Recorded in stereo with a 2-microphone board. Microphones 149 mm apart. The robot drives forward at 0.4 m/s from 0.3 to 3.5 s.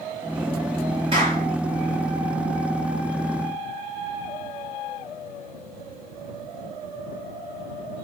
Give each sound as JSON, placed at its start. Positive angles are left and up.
{"t": 1.1, "sound": "a clap", "side_deg": -35, "distance_m": 6.0}